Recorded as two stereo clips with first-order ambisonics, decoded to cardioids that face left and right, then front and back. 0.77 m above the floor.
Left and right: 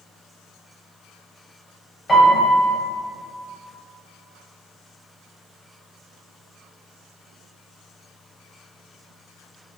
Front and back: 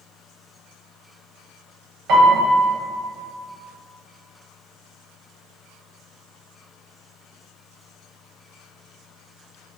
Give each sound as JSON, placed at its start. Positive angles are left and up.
{"t": 2.1, "sound": "a piano", "azimuth_deg": 165, "distance_m": 0.8}